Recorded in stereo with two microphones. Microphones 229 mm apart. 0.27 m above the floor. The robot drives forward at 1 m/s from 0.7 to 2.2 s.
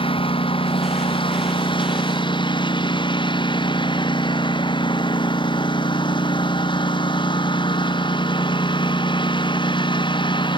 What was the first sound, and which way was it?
A lawn mower, 20° left (ahead or behind).